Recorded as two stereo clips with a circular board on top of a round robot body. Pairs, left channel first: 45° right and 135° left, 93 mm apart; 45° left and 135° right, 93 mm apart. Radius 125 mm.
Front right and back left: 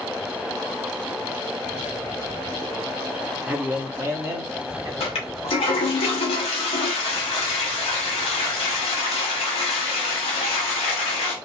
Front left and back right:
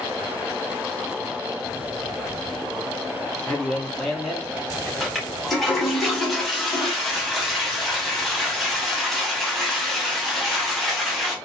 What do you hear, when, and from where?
3.5 s a man speaking: 100° left, 1.3 m; by 4.9 s 150° left, 1.6 m
5.0 s a toilet flushing: 45° right, 0.8 m